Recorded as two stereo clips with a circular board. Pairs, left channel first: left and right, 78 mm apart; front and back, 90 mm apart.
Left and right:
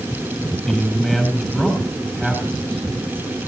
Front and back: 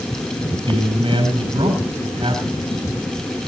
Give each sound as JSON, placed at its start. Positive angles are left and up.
{"t": 0.7, "sound": "a man speaking", "azimuth_deg": 170, "distance_m": 9.5}